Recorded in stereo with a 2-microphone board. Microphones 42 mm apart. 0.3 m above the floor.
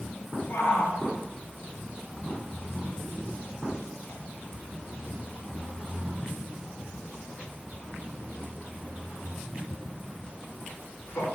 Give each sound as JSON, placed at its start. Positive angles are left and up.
{"t": 0.5, "sound": "a shout", "side_deg": 75, "distance_m": 4.0}